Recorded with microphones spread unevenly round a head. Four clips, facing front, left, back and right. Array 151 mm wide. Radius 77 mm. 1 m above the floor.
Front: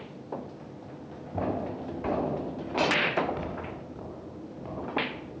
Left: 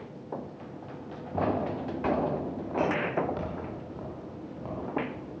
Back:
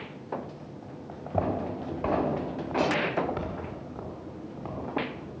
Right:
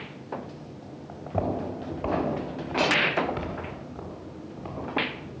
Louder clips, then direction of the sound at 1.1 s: Even, back 2 dB; 155° right.